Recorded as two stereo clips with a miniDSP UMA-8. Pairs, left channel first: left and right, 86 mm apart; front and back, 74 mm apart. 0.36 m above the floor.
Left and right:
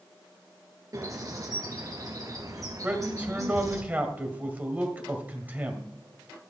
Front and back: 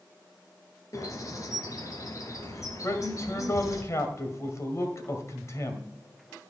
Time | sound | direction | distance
0.9 | a bird | 45° right | 1.8 m
2.8 | a man speaking | 25° right | 1.7 m